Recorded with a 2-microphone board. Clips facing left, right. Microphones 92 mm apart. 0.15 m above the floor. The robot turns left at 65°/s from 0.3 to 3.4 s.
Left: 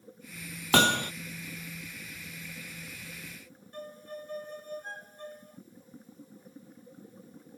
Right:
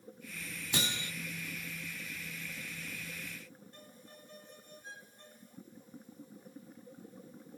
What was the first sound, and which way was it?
Hammering, 70° left (ahead or behind).